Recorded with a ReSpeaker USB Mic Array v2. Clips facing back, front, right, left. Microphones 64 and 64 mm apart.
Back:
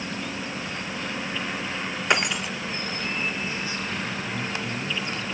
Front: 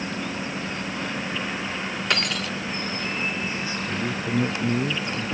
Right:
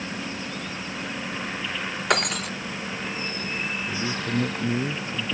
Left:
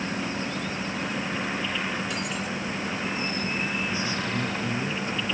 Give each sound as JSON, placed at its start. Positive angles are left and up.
{"t": 2.1, "sound": "breaking glass", "azimuth_deg": -110}
{"t": 3.9, "sound": "a man speaking", "azimuth_deg": -35}